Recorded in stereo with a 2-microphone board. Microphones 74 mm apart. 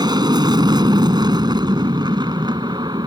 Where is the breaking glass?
No breaking glass in this recording.